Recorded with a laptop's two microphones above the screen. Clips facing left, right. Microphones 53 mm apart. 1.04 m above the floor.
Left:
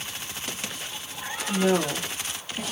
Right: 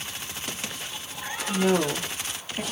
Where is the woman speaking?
5° left (ahead or behind), 1.4 m; by 2.6 s 35° right (ahead or behind), 0.9 m.